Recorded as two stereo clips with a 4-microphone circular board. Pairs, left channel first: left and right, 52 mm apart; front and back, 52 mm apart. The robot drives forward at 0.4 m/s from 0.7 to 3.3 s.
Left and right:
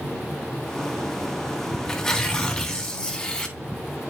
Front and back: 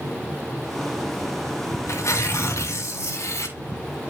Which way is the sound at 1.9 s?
15° left.